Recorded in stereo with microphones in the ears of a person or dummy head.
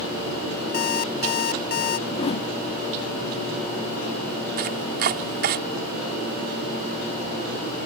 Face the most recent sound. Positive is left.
turn(degrees=-35)  # may be behind; listen again after turning